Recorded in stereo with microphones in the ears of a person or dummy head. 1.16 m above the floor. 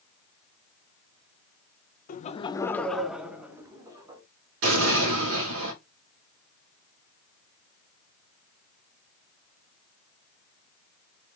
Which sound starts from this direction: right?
An explosion, at 4.6 s.